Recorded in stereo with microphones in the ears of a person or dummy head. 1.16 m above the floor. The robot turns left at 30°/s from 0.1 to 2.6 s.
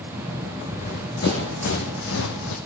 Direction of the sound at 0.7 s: 45° left (ahead or behind).